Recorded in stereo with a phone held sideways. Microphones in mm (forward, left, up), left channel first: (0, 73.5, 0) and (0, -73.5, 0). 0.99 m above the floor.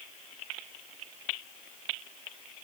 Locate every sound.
Only background noise.